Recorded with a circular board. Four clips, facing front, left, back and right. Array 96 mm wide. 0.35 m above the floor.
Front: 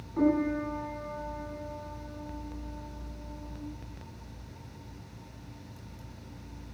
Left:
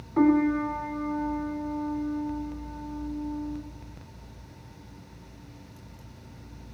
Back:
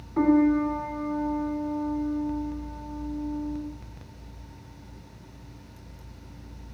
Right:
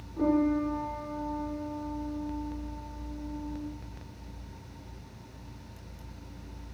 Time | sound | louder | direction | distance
0.2 | a piano | left 4 dB, back 6 dB | 120° left | 2.5 m